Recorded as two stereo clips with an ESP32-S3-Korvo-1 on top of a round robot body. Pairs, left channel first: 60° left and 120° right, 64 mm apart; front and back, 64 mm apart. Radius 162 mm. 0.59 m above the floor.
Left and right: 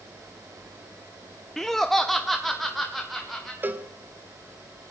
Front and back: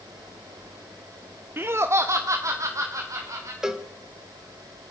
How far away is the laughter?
About 0.7 m.